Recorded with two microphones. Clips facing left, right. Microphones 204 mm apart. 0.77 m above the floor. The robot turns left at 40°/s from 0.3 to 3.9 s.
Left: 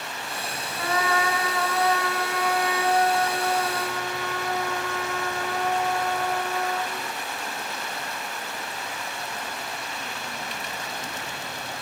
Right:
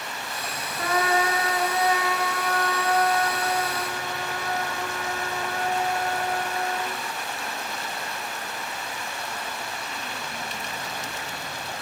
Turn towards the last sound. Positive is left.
turn(degrees=120)